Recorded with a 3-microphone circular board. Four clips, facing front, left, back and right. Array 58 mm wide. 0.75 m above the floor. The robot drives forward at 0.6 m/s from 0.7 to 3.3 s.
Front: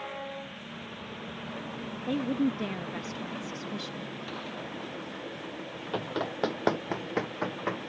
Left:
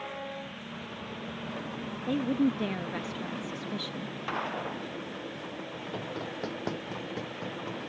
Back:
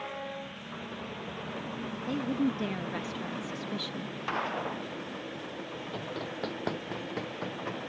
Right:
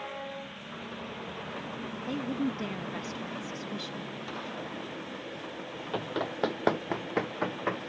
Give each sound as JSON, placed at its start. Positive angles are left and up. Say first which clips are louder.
{"t": 2.1, "sound": "a woman speaking", "louder": "left 5 dB, front 2 dB", "azimuth_deg": 35}
{"t": 4.3, "sound": "a gunshot", "louder": "left 8 dB, back 6 dB", "azimuth_deg": 145}
{"t": 5.9, "sound": "running footsteps", "louder": "right 5 dB, front 7 dB", "azimuth_deg": -40}